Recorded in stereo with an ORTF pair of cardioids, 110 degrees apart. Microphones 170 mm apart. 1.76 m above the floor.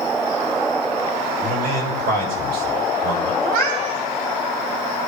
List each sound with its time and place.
1.4 s a man speaking: 65° right, 7.5 m
3.4 s a cat meowing: 65° right, 7.5 m